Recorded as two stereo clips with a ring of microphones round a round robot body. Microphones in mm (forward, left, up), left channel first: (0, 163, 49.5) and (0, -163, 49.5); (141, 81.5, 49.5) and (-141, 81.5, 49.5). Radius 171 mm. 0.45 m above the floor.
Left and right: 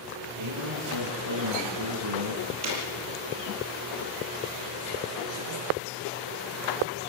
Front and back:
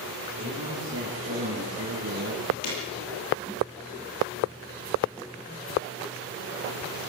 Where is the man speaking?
115° right, 9 m.